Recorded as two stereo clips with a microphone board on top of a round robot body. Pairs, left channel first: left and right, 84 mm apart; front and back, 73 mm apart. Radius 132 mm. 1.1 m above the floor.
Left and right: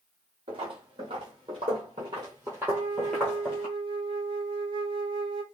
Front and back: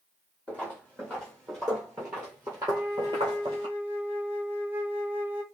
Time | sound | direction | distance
0.5 | footsteps | 75° right | 1.7 m
2.7 | a flute | 115° right | 0.7 m